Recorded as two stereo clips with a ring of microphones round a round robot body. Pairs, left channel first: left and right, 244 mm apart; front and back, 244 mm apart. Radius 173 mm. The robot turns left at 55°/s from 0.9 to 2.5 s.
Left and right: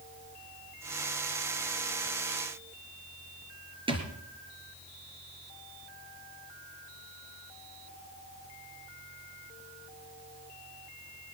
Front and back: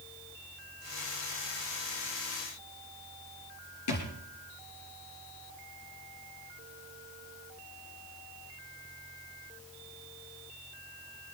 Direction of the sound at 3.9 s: 20° right.